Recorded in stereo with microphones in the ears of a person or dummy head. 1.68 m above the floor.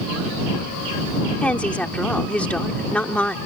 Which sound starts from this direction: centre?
A woman speaking, at 1.4 s.